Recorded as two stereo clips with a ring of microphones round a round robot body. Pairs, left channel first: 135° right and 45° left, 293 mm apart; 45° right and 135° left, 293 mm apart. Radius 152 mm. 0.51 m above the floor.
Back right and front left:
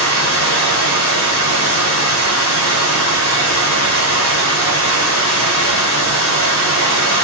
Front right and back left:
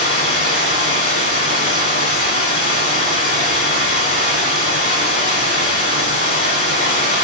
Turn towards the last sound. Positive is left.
turn(degrees=-100)